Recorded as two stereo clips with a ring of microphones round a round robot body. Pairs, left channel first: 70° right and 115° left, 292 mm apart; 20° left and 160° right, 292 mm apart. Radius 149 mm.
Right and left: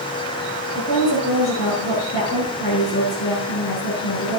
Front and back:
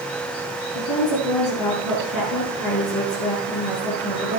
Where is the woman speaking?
10° right, 7.5 m.